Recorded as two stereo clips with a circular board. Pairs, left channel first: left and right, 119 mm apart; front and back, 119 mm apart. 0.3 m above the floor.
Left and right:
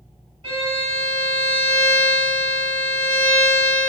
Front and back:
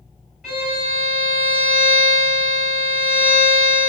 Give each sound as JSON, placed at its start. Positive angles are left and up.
{"t": 0.4, "sound": "a violin", "azimuth_deg": -95, "distance_m": 1.7}